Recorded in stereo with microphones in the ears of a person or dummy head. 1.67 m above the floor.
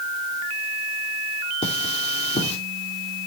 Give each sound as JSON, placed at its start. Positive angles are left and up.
{"t": 1.6, "sound": "cutlery clinking", "side_deg": 35, "distance_m": 2.5}